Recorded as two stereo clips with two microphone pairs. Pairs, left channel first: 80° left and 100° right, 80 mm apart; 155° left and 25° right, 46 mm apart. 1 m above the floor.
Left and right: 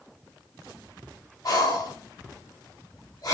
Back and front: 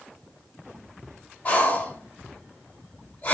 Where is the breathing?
105° left, 1.1 m.